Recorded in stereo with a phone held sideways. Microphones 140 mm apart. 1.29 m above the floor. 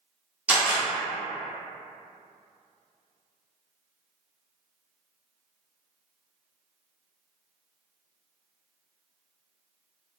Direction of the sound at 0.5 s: 10° right (ahead or behind).